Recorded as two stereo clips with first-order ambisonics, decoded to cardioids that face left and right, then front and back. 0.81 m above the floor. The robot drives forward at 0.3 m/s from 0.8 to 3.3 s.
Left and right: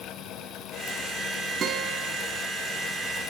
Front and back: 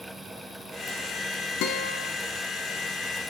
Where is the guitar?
30° right, 2.0 m.